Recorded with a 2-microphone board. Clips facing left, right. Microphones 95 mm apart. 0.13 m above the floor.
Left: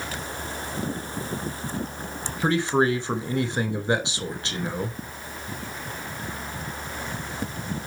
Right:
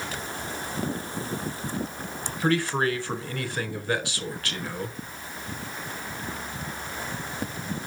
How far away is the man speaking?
About 1.2 m.